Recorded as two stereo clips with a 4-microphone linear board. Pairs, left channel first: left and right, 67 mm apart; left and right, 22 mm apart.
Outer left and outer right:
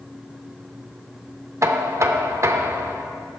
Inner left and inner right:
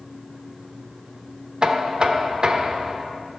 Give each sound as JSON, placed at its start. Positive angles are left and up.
{"t": 1.6, "sound": "knocking", "side_deg": -45, "distance_m": 0.6}